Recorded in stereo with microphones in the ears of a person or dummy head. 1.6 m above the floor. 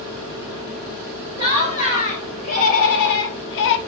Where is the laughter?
40° left (ahead or behind), 1.9 m; by 3.8 s 55° left (ahead or behind), 0.5 m.